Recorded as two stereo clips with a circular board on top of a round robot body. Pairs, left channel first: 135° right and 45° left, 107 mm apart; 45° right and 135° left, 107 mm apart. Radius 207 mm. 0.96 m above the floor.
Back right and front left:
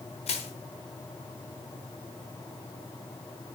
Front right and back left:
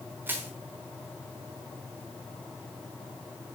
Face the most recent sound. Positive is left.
turn(degrees=-155)